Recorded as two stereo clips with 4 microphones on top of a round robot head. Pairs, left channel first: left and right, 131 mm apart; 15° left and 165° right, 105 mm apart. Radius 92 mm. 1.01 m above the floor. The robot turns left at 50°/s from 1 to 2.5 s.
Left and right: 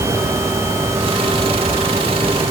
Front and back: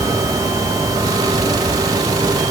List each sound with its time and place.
Only background noise.